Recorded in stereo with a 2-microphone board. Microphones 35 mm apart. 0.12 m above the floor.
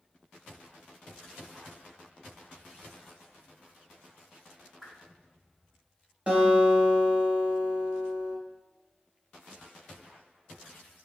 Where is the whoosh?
10° right (ahead or behind), 1.1 m.